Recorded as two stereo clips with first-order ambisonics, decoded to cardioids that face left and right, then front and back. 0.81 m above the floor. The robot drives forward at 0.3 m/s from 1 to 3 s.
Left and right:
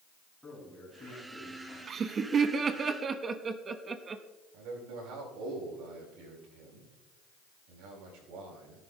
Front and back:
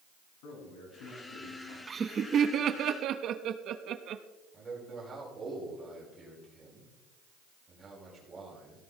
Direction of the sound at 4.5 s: 105° right.